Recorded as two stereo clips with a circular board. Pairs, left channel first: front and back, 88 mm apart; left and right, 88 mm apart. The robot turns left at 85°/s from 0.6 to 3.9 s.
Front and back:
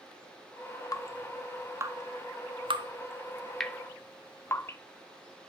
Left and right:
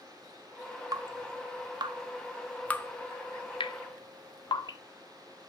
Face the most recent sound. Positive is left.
turn(degrees=60)